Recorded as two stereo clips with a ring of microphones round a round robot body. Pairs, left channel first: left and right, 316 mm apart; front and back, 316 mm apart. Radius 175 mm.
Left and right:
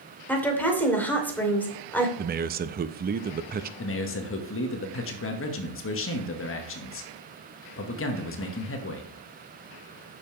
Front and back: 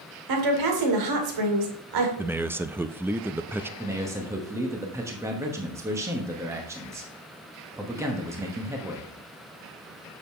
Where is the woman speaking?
175° left, 2.5 m.